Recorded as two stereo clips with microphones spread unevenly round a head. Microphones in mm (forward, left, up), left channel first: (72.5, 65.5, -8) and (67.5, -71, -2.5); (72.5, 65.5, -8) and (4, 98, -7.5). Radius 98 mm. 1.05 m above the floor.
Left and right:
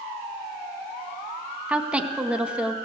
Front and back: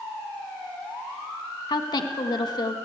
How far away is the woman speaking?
About 1.5 m.